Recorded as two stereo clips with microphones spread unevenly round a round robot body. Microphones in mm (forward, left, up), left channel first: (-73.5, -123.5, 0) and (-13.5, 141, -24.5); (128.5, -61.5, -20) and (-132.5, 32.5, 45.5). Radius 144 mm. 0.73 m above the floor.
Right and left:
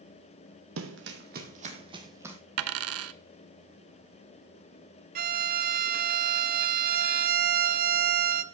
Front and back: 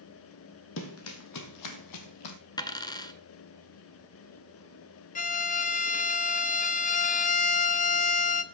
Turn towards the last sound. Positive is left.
turn(degrees=25)